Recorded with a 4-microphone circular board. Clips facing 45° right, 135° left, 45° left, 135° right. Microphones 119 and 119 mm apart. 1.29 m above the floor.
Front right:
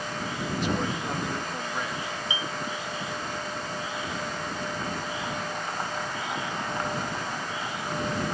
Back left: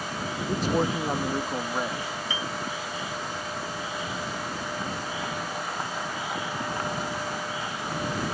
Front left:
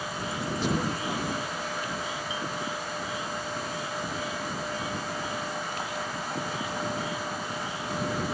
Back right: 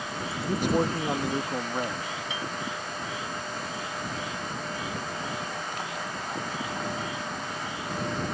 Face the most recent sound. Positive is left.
turn(degrees=-120)